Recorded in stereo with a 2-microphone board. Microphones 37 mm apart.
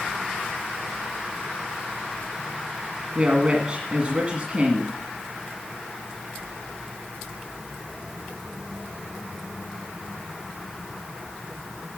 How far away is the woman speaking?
About 1.6 m.